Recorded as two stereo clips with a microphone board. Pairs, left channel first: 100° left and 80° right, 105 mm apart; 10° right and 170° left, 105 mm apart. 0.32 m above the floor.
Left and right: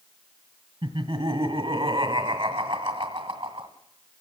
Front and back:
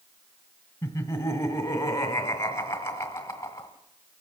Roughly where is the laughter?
Ahead right.